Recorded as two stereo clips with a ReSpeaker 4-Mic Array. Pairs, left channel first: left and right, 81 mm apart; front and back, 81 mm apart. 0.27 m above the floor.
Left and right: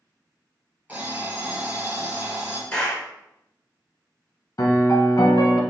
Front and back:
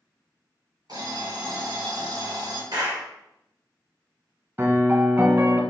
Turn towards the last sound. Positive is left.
turn(degrees=125)